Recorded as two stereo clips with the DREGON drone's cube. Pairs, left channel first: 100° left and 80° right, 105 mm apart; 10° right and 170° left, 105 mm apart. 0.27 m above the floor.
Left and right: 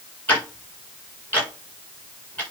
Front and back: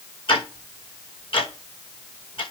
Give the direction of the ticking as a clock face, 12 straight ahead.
11 o'clock.